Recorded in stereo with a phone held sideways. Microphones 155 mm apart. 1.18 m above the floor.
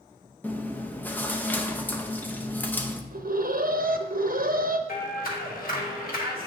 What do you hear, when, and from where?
0.4 s chewing: 10° left (ahead or behind), 0.6 m
3.1 s an alarm: 70° right (ahead or behind), 0.6 m
4.9 s a clap: 70° left (ahead or behind), 1.5 m